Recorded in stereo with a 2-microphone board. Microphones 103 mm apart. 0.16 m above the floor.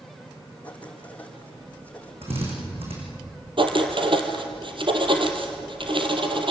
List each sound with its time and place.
0.6 s writing: 15° left (ahead or behind), 4.5 m
2.2 s a drill: 70° right (ahead or behind), 8 m
3.6 s writing: 55° right (ahead or behind), 2.5 m